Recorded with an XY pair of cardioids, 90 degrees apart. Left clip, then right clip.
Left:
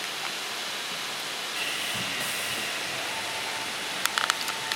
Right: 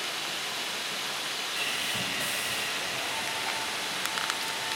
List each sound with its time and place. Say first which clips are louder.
1.6 s sawing: left 1 dB; 5° right, 8.5 m